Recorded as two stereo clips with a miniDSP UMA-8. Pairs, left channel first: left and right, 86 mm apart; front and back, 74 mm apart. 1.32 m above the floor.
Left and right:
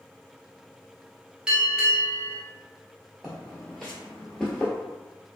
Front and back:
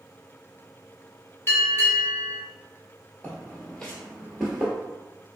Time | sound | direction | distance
1.5 | a bell | 20° right | 1.0 m
3.2 | footsteps | 20° right | 1.3 m